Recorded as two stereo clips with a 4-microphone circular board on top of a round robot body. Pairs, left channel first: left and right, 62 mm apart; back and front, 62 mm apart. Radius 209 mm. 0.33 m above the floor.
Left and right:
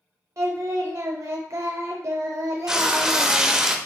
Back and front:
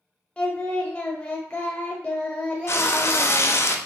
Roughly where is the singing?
Behind right.